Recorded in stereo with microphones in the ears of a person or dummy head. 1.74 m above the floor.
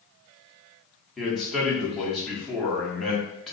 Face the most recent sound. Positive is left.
turn(degrees=0)  # may be behind; listen again after turning